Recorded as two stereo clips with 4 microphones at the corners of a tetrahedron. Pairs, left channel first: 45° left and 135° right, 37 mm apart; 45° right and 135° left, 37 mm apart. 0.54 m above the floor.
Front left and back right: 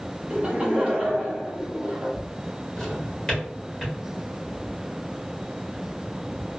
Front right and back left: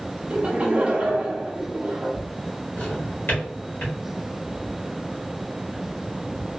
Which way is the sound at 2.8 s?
40° right.